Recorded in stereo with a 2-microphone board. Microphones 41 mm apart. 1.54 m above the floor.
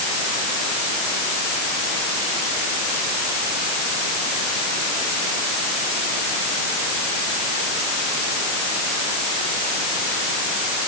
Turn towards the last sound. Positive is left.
No sound to turn to.